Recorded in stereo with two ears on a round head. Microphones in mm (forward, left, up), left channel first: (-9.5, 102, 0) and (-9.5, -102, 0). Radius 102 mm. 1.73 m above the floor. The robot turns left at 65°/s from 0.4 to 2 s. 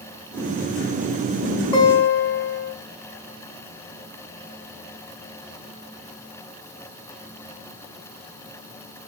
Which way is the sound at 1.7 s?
20° left (ahead or behind).